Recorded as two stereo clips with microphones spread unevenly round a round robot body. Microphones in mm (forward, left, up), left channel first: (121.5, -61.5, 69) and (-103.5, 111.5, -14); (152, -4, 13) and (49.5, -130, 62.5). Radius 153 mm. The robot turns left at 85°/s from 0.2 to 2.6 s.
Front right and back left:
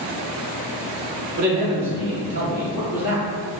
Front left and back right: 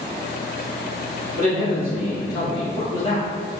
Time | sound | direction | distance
1.4 | a man speaking | 175° left | 1.9 m